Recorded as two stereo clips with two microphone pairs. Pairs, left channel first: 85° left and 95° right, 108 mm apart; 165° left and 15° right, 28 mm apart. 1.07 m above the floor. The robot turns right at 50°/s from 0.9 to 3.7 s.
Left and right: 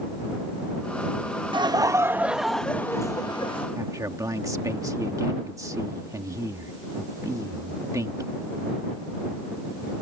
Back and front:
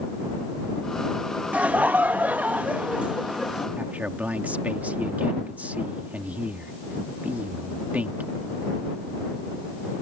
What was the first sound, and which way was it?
Laughter, 50° right.